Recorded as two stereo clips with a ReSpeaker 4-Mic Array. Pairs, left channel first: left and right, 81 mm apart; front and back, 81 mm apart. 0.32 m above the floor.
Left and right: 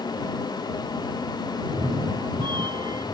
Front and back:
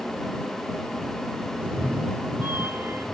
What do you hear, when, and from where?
1.6 s a cat meowing: 110° right; by 3.1 s 120° right